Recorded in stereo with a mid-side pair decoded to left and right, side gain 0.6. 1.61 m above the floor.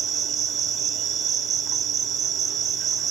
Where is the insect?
50° right, 3 m.